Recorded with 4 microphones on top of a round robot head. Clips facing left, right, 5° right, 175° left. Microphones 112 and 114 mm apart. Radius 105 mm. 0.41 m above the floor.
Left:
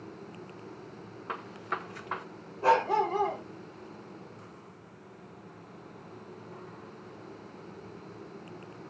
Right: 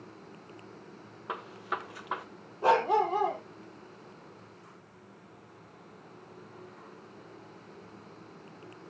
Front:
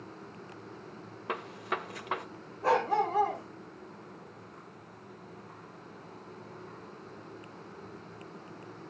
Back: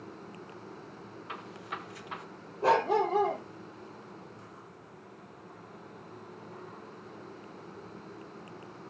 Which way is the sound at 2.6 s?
160° right.